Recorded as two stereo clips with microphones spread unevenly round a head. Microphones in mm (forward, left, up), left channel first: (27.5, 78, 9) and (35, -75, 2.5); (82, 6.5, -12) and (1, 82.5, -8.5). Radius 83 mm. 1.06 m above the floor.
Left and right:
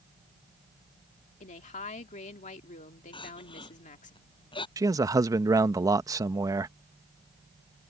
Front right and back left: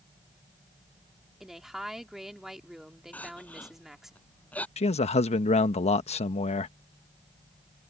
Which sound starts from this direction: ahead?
A man speaking, at 4.8 s.